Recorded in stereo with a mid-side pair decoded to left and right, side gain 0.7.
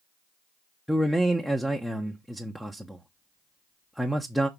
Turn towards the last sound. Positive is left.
turn(degrees=0)